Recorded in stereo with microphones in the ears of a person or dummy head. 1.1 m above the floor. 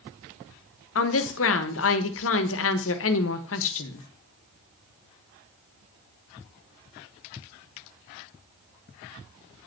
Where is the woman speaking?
70° left (ahead or behind), 1.3 m.